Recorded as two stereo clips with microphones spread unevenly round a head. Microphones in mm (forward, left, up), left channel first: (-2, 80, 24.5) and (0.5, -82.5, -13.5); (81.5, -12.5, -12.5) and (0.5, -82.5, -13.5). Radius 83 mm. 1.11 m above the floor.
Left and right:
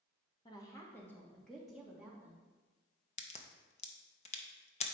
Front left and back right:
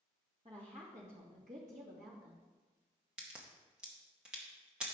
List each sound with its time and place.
0.5 s a woman speaking: 160° left, 1.7 m; by 2.4 s 165° right, 2 m
3.2 s a crack: 140° left, 0.9 m